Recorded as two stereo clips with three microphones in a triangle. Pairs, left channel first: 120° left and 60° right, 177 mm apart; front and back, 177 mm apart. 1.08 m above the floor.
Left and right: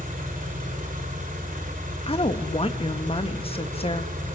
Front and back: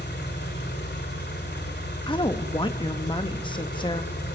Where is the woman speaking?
60° left, 1.1 m.